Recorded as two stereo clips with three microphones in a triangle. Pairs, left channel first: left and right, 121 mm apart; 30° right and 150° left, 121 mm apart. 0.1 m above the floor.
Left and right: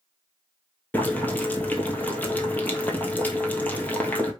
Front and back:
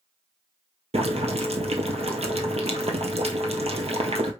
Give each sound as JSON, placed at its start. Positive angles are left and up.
{"t": 0.9, "sound": "boiling", "azimuth_deg": 165, "distance_m": 1.1}